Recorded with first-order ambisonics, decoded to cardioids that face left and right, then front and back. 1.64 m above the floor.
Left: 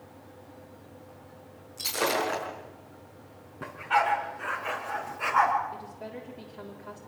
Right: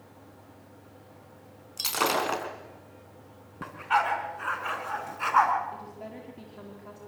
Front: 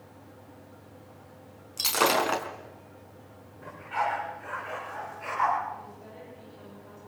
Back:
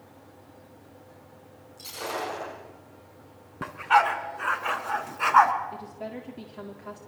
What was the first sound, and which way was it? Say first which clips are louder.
Breaking glass: right 1 dB, front 9 dB; 30° right.